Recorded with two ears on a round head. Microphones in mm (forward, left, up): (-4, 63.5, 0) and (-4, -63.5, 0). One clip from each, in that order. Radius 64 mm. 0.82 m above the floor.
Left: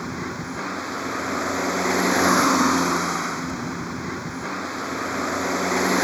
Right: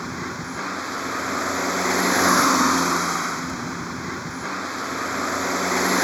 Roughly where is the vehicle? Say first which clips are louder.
Even; centre.